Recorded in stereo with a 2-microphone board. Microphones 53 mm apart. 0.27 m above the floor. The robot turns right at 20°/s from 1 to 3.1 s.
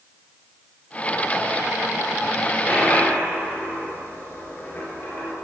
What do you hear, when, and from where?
2.7 s a dropped coin: 30° left (ahead or behind), 2 m; by 5.3 s 35° left (ahead or behind), 2 m